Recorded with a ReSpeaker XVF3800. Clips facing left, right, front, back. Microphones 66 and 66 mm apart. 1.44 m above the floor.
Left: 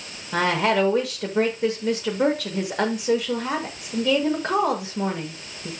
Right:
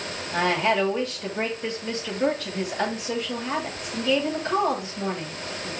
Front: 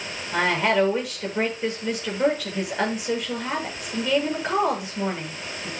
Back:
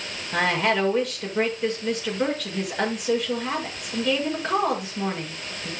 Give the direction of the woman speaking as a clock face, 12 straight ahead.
9 o'clock.